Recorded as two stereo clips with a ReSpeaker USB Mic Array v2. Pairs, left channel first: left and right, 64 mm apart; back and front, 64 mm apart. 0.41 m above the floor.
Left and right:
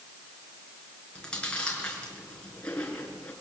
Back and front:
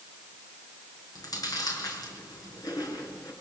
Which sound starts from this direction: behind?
Chewing, at 1.1 s.